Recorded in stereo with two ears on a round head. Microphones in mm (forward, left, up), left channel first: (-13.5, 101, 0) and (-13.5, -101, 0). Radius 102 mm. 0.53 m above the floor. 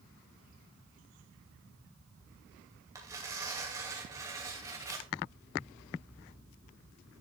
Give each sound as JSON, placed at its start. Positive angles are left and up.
{"t": 3.0, "sound": "tearing paper", "side_deg": -15, "distance_m": 2.5}